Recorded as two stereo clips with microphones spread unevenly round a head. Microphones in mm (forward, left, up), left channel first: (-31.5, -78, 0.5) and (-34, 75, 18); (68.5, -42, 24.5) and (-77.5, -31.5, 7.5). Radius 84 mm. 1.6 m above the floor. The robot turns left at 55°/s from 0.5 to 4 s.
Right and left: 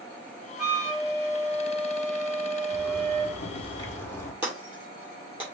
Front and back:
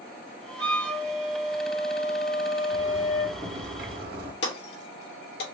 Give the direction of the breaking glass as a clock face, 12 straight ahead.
12 o'clock.